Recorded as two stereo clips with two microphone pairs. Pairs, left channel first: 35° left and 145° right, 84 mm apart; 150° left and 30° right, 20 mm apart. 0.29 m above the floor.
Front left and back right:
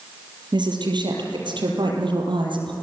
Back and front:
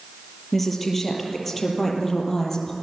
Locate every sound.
0.5 s a woman speaking: 120° right, 6 m; by 2.7 s 135° right, 7 m